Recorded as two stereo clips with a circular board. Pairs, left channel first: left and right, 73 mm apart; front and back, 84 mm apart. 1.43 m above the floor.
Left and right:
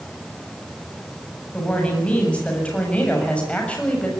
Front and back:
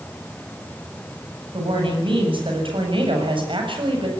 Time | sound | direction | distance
1.5 | a woman speaking | 165° left | 8 m